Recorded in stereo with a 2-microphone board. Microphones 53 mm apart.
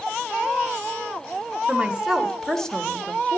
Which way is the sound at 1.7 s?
20° right (ahead or behind).